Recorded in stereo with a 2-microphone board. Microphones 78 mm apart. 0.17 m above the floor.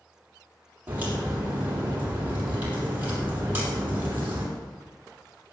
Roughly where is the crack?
Right.